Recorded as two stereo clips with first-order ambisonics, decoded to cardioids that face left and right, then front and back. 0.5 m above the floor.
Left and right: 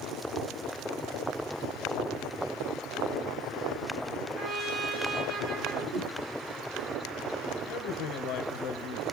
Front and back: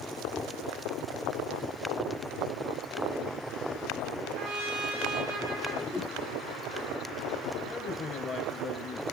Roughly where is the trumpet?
Behind.